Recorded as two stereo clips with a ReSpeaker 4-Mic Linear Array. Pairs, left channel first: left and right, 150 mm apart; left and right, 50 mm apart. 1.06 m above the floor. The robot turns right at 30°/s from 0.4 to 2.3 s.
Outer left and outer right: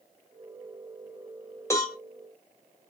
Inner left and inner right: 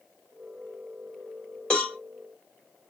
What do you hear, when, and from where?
1.7 s a cowbell: 20° left (ahead or behind), 1.4 m; by 2.0 s 25° left (ahead or behind), 1.4 m